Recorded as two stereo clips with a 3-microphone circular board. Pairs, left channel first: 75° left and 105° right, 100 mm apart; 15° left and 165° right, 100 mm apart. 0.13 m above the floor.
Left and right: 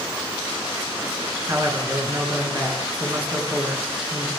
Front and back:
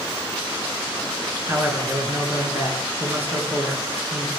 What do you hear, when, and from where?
1.5 s a man speaking: 120° right, 1.9 m